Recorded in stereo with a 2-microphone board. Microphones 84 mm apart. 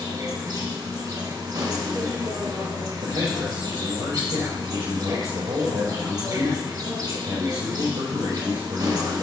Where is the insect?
50° right (ahead or behind), 2 m.